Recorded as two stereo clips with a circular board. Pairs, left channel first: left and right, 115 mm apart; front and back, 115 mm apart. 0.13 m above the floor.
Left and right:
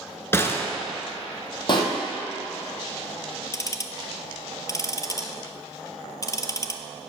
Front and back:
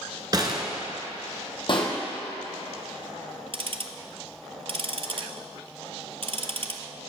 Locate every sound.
0.3 s a gunshot: 150° left, 0.9 m
1.7 s a pop: 40° left, 1.5 m
3.5 s ticking: 150° left, 0.5 m